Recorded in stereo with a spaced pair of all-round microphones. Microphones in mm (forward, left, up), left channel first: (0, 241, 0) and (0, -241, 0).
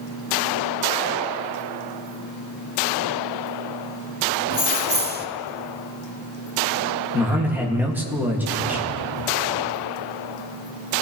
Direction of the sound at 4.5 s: 20° right (ahead or behind).